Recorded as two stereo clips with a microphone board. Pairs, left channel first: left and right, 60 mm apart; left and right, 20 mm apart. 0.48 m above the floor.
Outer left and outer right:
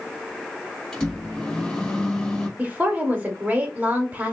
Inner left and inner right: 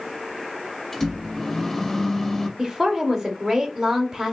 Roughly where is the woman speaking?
Right.